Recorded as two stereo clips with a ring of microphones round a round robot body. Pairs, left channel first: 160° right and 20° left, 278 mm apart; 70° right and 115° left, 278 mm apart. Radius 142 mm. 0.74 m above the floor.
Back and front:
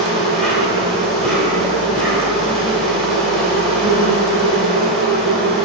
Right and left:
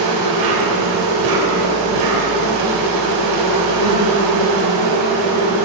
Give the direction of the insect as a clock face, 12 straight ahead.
8 o'clock.